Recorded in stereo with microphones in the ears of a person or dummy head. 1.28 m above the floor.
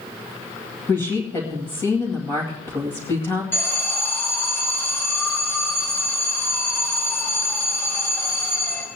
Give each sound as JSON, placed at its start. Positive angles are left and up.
{"t": 0.9, "sound": "a woman speaking", "side_deg": 10, "distance_m": 2.0}
{"t": 3.5, "sound": "an alarm", "side_deg": 15, "distance_m": 4.0}